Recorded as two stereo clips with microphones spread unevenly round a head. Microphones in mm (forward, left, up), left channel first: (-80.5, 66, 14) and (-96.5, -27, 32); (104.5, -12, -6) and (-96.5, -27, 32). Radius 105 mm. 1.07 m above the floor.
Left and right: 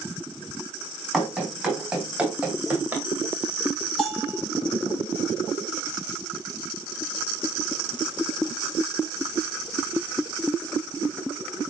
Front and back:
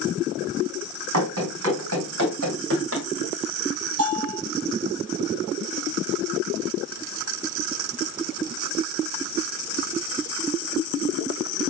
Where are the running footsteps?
Straight behind, 4.5 m; by 3.0 s 170° right, 3.5 m.